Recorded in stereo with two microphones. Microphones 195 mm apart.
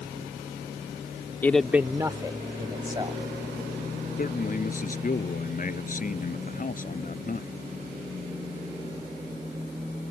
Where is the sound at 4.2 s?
45° left (ahead or behind).